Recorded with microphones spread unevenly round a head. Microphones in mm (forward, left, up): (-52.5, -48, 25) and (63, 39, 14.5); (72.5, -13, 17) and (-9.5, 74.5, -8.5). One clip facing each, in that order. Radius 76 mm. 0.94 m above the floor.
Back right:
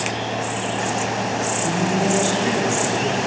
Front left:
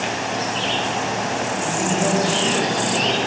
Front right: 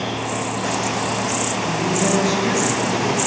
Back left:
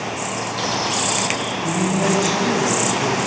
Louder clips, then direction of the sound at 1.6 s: Back right 1 dB, back left 2 dB; straight behind.